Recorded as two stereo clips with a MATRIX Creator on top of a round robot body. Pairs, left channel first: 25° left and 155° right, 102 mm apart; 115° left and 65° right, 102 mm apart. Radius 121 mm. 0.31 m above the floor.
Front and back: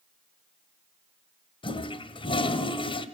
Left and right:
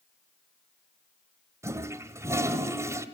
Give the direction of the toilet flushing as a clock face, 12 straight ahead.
12 o'clock.